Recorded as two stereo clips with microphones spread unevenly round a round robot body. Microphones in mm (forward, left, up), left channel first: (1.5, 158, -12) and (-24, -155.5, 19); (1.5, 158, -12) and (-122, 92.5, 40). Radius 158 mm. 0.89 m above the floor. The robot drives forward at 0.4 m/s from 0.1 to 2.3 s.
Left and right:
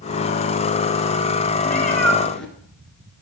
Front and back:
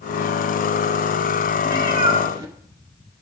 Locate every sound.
1.6 s a cat meowing: 175° left, 1.2 m